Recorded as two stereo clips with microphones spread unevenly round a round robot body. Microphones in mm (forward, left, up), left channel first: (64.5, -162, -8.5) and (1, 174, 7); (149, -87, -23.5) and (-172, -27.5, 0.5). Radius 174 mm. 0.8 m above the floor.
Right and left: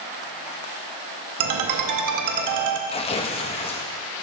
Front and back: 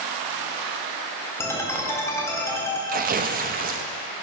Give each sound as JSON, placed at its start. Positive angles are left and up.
{"t": 1.4, "sound": "a ringtone", "azimuth_deg": 70, "distance_m": 0.8}
{"t": 2.9, "sound": "tearing paper", "azimuth_deg": -140, "distance_m": 0.6}